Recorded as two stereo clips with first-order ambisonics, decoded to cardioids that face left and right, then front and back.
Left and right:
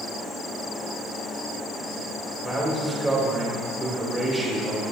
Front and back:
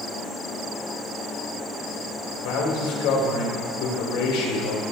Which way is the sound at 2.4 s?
10° right.